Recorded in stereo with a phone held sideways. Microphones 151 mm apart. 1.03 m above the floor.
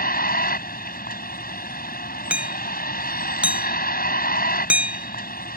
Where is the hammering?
10° right (ahead or behind).